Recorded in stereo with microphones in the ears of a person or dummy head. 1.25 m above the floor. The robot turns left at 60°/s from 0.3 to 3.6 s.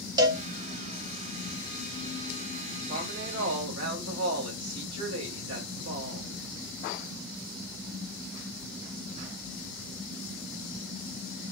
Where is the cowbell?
15° right (ahead or behind), 0.6 m; by 0.4 s 20° right (ahead or behind), 0.6 m.